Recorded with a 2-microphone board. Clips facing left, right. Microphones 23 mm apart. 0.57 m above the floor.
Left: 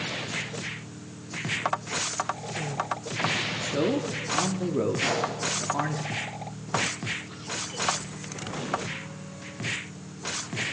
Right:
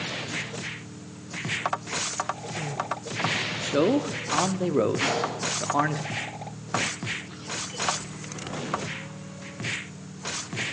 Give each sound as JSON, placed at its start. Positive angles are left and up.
{"t": 3.6, "sound": "a man speaking", "side_deg": -30, "distance_m": 0.7}
{"t": 5.0, "sound": "a gunshot", "side_deg": -60, "distance_m": 5.5}